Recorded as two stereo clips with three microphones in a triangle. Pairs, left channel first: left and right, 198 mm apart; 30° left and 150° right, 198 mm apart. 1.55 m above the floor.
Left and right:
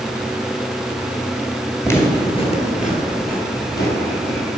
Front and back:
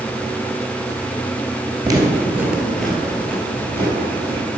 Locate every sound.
1.8 s footsteps: 160° left, 1.8 m; by 4.6 s 100° left, 4 m